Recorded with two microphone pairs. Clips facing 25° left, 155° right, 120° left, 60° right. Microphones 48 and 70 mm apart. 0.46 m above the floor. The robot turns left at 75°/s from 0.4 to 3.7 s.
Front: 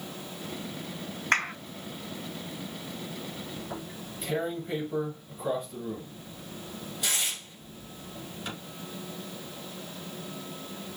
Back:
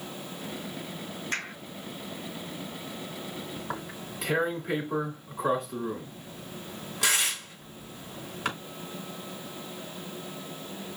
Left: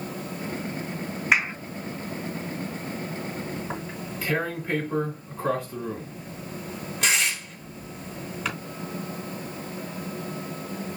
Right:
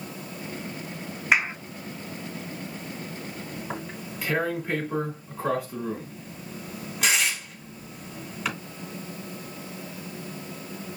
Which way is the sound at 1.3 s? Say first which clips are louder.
Front 9 dB, even; 35° left.